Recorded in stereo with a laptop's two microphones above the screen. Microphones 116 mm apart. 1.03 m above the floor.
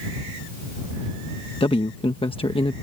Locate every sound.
1.6 s a man speaking: 50° left (ahead or behind)